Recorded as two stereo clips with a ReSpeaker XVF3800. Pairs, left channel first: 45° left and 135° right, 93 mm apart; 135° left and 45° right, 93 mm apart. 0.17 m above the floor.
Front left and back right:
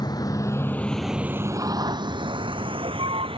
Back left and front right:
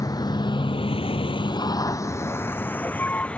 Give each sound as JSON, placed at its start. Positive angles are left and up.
{"t": 0.0, "sound": "a vehicle", "azimuth_deg": 85}